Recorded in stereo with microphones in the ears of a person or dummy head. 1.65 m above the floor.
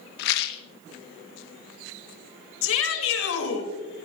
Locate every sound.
0.2 s a rattle: 60° left (ahead or behind), 0.9 m
2.6 s a shout: 80° left, 3.5 m